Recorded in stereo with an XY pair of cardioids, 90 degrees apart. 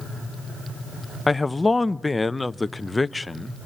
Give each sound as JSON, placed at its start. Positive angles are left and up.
{"t": 1.3, "sound": "a man speaking", "azimuth_deg": 15, "distance_m": 0.5}